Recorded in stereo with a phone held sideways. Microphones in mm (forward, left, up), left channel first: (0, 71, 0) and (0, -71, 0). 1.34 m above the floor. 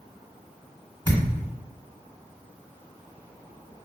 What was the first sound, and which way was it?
A thud, 30° left (ahead or behind).